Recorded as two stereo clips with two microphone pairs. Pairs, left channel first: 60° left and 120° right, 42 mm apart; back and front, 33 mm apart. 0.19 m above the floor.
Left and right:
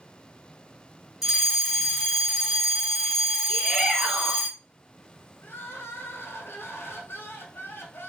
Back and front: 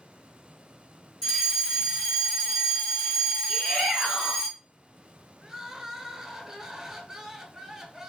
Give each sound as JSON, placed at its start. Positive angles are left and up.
{"t": 1.2, "sound": "a fire alarm", "azimuth_deg": 180, "distance_m": 2.0}
{"t": 3.5, "sound": "a shout", "azimuth_deg": -155, "distance_m": 1.6}
{"t": 5.4, "sound": "crying", "azimuth_deg": 75, "distance_m": 0.7}